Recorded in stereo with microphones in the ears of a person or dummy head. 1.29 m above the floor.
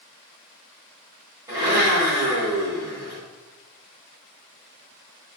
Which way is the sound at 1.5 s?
15° right (ahead or behind).